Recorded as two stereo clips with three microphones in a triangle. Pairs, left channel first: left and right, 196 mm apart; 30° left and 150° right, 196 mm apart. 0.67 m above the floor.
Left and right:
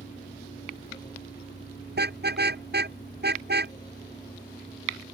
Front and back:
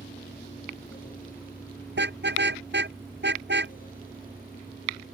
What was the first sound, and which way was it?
A vehicle, 80° left.